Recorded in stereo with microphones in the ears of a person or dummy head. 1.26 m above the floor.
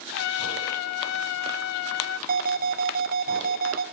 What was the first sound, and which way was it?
A trumpet, 80° left.